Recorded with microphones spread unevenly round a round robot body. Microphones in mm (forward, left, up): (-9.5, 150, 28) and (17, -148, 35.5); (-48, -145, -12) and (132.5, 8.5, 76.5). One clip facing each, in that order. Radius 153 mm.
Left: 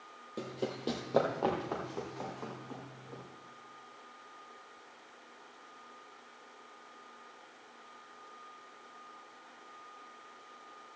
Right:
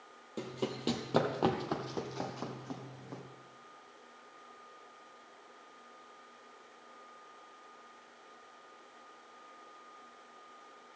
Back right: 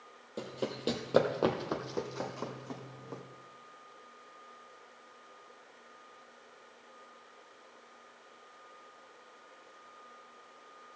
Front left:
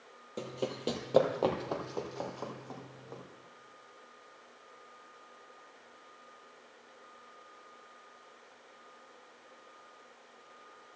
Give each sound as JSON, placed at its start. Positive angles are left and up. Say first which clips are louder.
{"t": 0.4, "sound": "running footsteps", "louder": "even, front left 1 dB", "azimuth_deg": -10, "distance_m": 1.0}